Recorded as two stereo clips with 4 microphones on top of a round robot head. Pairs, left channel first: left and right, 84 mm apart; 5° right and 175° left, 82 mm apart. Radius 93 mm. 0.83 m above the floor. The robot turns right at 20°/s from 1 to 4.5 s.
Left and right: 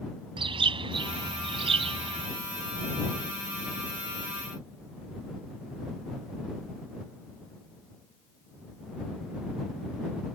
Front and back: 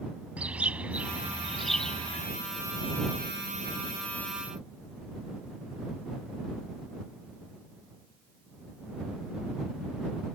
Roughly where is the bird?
Right.